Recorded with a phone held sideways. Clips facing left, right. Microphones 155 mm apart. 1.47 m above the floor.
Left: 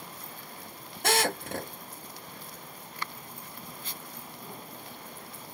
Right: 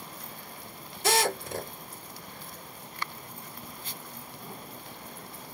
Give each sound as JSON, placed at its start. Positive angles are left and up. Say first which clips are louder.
{"t": 1.0, "sound": "a drill", "louder": "right 1 dB", "side_deg": 60, "distance_m": 1.5}